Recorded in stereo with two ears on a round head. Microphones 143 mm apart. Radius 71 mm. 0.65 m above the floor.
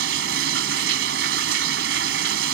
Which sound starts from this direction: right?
Running water, at 0.0 s.